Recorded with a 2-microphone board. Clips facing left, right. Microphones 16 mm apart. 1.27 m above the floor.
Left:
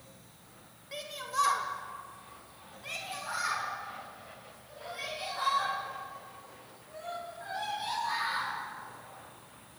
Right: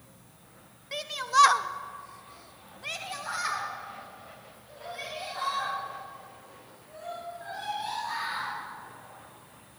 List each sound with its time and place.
0.9 s a shout: 25° right (ahead or behind), 1.4 m; by 8.5 s 5° right (ahead or behind), 7.5 m